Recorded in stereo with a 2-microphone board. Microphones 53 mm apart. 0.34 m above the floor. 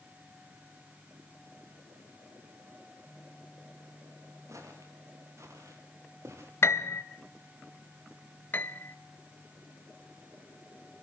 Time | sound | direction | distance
4.5 | footsteps | 75° right (ahead or behind) | 6.5 m
6.6 | a piano | 50° left (ahead or behind) | 1.3 m
8.5 | a piano | 35° left (ahead or behind) | 0.5 m